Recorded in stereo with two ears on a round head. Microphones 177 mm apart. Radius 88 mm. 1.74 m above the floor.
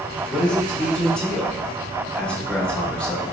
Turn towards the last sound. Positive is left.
turn(degrees=5)  # may be behind; listen again after turning